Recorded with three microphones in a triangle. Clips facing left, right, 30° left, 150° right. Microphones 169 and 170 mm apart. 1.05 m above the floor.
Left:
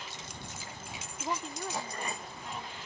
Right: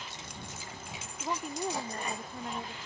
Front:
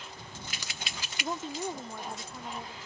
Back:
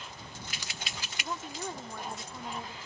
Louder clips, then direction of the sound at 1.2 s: Right 2 dB, front 4 dB; 15° left.